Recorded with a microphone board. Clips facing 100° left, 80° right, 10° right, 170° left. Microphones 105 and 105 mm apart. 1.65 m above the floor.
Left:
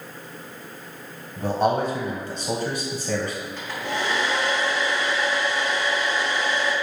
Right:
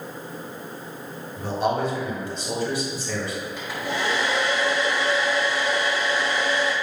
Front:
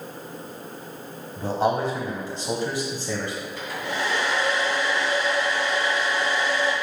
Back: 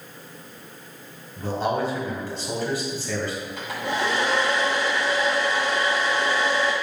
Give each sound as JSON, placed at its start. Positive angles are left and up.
{"t": 1.4, "sound": "a man speaking", "azimuth_deg": 45, "distance_m": 1.5}
{"t": 3.6, "sound": "a hair dryer", "azimuth_deg": -160, "distance_m": 2.5}